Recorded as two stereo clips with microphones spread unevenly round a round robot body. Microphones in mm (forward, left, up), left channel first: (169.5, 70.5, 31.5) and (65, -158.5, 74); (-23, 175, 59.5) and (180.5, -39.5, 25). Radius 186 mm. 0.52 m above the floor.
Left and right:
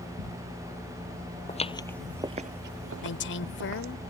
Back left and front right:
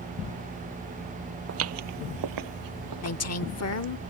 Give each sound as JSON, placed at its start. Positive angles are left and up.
{"t": 1.5, "sound": "footsteps", "azimuth_deg": 0}
{"t": 3.0, "sound": "a woman speaking", "azimuth_deg": 100}